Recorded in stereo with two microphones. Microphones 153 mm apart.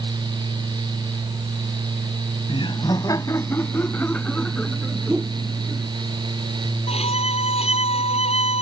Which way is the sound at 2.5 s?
35° left (ahead or behind).